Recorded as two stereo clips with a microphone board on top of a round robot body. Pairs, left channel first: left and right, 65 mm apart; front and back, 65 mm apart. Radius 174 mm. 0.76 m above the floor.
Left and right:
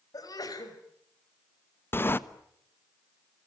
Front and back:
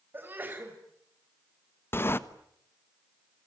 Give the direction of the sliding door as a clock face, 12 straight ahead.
11 o'clock.